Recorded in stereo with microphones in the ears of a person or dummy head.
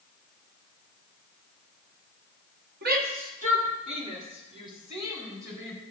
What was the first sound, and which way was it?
A shout, 55° right (ahead or behind).